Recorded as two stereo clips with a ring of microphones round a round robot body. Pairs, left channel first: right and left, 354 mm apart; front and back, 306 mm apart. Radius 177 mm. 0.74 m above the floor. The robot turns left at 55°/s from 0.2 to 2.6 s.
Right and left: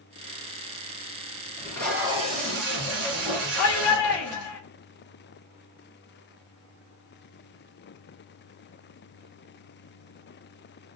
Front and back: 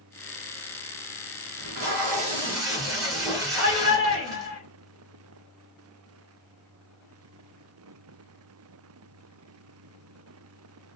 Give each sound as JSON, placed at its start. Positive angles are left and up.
{"t": 1.6, "sound": "tape being pulled", "azimuth_deg": -160, "distance_m": 2.0}
{"t": 3.6, "sound": "a shout", "azimuth_deg": -135, "distance_m": 1.0}